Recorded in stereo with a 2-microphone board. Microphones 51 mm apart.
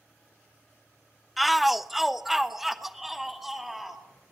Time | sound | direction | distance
1.4 | a shout | centre (ahead or behind) | 0.6 m